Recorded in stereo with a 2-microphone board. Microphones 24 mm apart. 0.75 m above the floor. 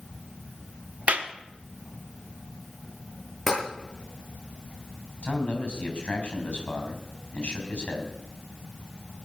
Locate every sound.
1.1 s a clap: 70° right (ahead or behind), 1.0 m
3.5 s tapping: 10° left (ahead or behind), 8 m
5.2 s a man speaking: 60° left (ahead or behind), 4.5 m